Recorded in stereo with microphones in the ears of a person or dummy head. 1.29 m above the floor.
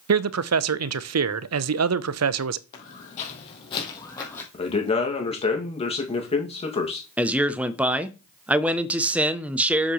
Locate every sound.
0.1 s a man speaking: 75° right (ahead or behind), 0.6 m
2.7 s footsteps: 50° left (ahead or behind), 3 m; by 4.4 s 20° left (ahead or behind), 3 m
4.5 s a man speaking: 25° left (ahead or behind), 2 m
7.2 s a man speaking: 5° right (ahead or behind), 0.6 m